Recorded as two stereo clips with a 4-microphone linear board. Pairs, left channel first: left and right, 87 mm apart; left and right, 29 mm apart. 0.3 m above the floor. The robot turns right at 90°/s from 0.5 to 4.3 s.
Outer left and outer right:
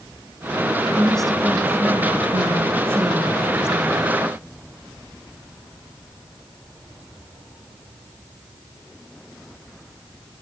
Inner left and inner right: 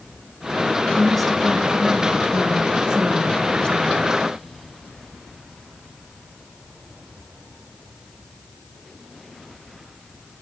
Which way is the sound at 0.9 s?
150° left.